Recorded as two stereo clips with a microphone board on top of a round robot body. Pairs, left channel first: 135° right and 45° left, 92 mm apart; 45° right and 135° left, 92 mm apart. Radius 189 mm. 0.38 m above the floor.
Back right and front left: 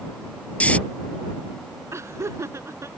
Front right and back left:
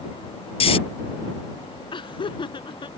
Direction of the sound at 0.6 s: 60° right.